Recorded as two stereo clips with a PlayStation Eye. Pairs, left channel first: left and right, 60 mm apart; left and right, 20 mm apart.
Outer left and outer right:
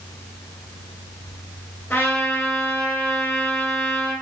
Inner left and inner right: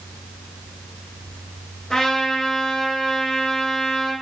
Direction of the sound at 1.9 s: 25° left (ahead or behind).